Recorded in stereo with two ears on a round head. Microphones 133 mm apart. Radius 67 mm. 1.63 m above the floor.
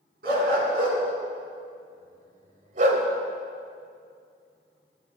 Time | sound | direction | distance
0.2 | a dog barking | 70° right (ahead or behind) | 6 m